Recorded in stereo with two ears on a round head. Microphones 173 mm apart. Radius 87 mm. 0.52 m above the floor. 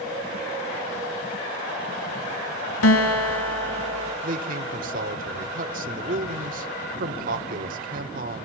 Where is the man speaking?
45° right (ahead or behind), 1.6 m.